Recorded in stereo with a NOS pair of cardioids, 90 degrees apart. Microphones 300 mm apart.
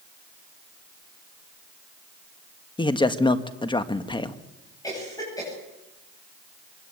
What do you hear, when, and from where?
2.8 s a man speaking: 15° left, 1.8 m
4.8 s a cough: 10° left, 9.5 m